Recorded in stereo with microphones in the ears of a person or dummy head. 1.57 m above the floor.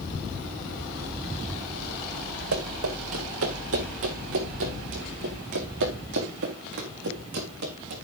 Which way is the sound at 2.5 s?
75° right (ahead or behind).